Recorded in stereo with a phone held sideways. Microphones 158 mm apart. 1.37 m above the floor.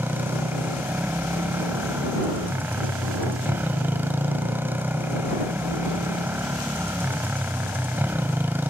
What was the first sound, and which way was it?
A motorcycle, 10° right (ahead or behind).